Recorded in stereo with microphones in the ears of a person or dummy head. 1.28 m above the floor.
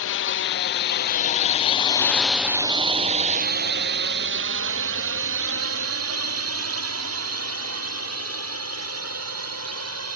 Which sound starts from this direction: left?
A drone, at 0.0 s.